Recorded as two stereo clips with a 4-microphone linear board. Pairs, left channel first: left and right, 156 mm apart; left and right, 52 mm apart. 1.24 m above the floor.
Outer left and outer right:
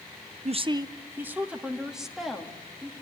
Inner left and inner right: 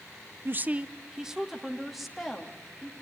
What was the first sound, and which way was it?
A woman speaking, 45° right (ahead or behind).